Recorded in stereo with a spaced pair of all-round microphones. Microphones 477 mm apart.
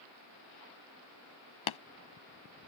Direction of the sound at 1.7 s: 80° left.